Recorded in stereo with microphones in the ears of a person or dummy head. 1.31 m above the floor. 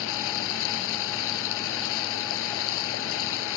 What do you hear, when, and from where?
0.0 s running water: 75° left (ahead or behind)